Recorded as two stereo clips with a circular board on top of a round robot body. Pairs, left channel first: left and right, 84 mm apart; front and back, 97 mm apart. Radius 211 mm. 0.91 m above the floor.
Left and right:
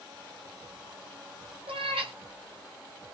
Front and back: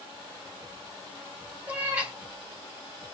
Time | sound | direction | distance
1.7 | a cat meowing | 105° right | 0.7 m